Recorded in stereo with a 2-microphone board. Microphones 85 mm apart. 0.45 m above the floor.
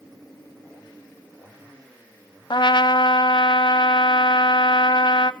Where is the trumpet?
65° left (ahead or behind), 0.7 m.